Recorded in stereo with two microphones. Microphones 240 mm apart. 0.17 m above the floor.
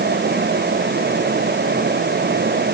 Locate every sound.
Only background noise.